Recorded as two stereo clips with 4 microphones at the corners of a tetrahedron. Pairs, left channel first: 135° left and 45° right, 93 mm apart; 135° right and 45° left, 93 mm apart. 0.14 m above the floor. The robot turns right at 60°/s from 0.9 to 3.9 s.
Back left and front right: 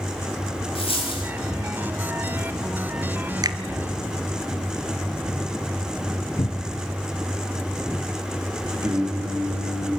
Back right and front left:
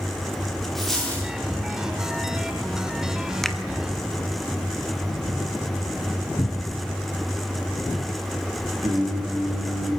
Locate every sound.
0.8 s a dropped coin: 140° left, 8 m; by 1.3 s 160° left, 8 m
3.4 s a finger snap: 50° right, 1.2 m; by 3.6 s 40° right, 1.2 m
6.4 s a cupboard door: 170° left, 0.7 m
8.8 s singing: 5° left, 9.5 m